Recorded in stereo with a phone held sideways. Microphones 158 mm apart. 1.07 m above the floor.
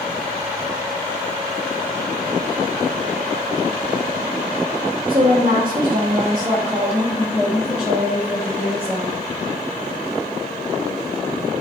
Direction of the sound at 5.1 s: 40° right (ahead or behind).